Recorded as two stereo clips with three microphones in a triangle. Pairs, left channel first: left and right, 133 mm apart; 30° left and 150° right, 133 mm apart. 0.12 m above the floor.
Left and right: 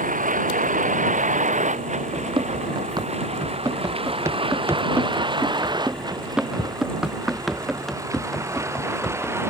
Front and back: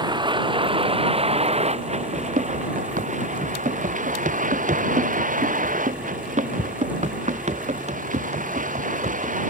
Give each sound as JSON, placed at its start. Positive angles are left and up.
{"t": 0.0, "sound": "a vehicle", "azimuth_deg": -95}
{"t": 2.1, "sound": "running footsteps", "azimuth_deg": -140}